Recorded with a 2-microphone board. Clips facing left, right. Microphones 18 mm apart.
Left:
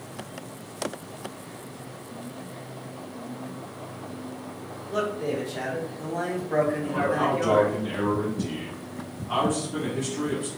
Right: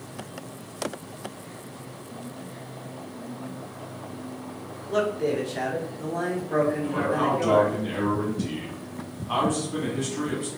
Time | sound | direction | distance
4.9 | a man speaking | 30° right (ahead or behind) | 1.3 m
6.8 | a man speaking | 20° right (ahead or behind) | 1.9 m